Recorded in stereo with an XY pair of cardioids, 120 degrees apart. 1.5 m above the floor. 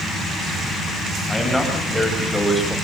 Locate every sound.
1.3 s a man speaking: straight ahead, 8 m